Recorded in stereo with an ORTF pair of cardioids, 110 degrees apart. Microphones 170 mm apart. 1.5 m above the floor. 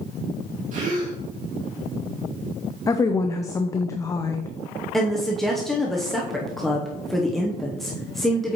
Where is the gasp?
50° right, 2.5 m.